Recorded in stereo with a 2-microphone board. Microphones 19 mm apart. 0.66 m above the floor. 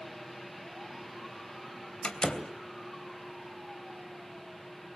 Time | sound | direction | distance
2.0 | a door slam | 50° left (ahead or behind) | 2.5 m